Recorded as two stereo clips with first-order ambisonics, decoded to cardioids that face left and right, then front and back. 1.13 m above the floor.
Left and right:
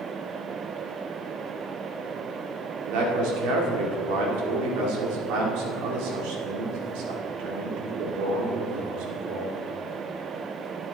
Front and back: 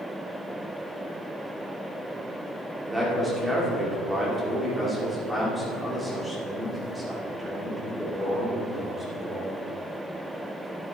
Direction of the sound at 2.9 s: 95° right.